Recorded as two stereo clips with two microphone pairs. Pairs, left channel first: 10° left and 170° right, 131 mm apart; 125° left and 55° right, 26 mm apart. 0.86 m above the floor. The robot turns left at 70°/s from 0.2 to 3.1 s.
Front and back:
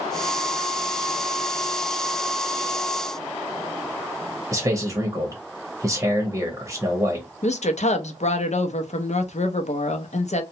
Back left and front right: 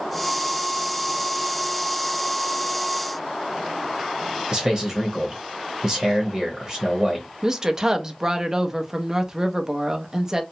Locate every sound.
4.5 s a man speaking: 115° right, 0.9 m
7.4 s a woman speaking: 20° left, 0.5 m